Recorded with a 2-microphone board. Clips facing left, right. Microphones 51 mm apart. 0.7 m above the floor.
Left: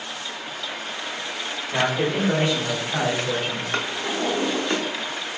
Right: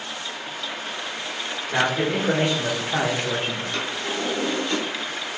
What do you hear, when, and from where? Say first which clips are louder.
1.7 s a man speaking: even; 60° right (ahead or behind), 1.9 m; by 3.6 s 30° right (ahead or behind), 1.2 m
3.7 s a drawer: left 2 dB; 40° left (ahead or behind), 0.9 m